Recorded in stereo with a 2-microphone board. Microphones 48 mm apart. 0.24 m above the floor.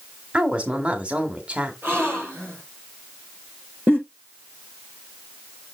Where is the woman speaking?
25° right (ahead or behind), 1.7 m.